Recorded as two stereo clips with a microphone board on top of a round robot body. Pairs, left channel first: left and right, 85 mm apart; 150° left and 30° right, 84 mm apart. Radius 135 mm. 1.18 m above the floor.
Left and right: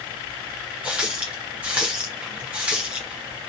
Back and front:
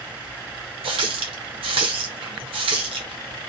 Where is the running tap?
15° right, 0.7 m.